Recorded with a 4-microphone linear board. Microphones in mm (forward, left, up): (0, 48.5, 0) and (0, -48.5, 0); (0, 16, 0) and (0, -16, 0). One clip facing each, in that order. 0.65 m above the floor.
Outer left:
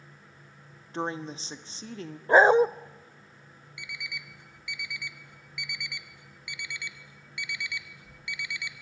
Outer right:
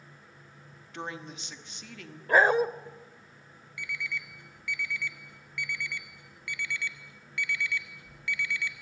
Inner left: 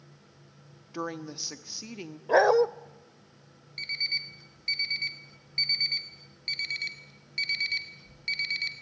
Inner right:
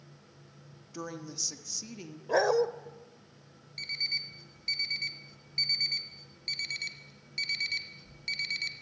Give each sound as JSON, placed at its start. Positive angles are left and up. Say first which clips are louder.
{"t": 0.9, "sound": "a woman speaking", "louder": "outer left 6 dB, inner left 5 dB", "side_deg": 35, "distance_m": 1.3}
{"t": 2.3, "sound": "a dog barking", "louder": "outer left 4 dB, inner left 5 dB", "side_deg": 20, "distance_m": 0.6}
{"t": 3.8, "sound": "an alarm clock", "louder": "outer right 5 dB, inner left 3 dB", "side_deg": 15, "distance_m": 2.0}